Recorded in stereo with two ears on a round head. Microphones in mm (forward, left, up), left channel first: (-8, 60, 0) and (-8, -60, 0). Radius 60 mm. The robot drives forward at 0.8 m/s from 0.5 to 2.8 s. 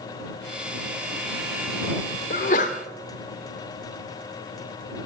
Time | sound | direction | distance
2.3 | a sneeze | 60° left (ahead or behind) | 1.3 m